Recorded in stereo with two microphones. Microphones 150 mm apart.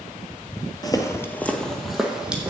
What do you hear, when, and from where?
0.8 s footsteps: 25° left (ahead or behind), 0.9 m; by 2.5 s 10° right (ahead or behind), 1.8 m